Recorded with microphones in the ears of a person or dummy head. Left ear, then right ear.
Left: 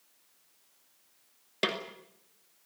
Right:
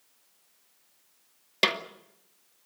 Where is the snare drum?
35° right (ahead or behind), 2.5 m.